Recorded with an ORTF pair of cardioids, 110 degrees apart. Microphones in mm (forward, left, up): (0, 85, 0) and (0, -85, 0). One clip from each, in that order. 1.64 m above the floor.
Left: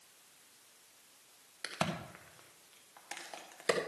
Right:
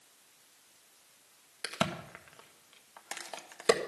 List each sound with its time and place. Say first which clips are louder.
1.6 s a crack: right 3 dB; 35° right, 1.6 m